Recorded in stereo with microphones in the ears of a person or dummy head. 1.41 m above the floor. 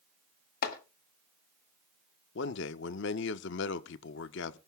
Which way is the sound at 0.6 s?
55° left (ahead or behind).